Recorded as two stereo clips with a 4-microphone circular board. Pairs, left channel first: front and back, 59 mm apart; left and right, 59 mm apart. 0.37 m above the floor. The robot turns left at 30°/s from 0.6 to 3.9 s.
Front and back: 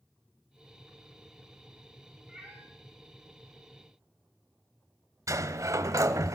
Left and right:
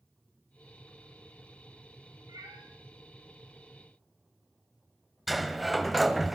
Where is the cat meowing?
100° right, 6.5 m; by 2.6 s 110° right, 6.5 m.